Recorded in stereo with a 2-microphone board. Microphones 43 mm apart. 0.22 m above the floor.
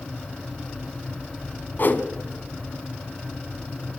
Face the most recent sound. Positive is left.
turn(degrees=50)  # may be behind; listen again after turning